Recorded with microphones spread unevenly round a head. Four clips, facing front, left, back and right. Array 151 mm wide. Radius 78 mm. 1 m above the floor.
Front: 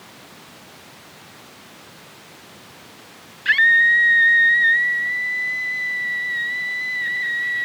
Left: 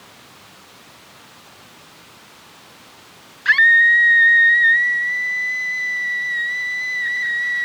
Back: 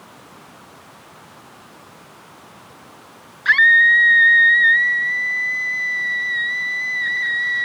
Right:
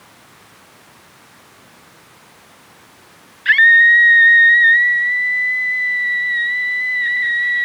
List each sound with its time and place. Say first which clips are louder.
3.5 s a scream: right 3 dB, back 3 dB; 150° left